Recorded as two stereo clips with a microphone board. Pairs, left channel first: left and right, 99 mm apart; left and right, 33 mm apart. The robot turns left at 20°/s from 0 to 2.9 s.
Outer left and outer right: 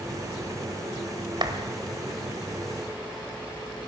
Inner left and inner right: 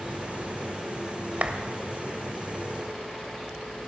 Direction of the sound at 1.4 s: 50° right (ahead or behind).